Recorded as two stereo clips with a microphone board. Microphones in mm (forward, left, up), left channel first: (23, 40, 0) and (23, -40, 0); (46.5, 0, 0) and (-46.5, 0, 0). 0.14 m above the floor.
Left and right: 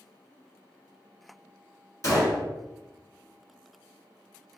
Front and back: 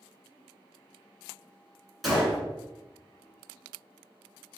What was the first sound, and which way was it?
A gunshot, 95° left.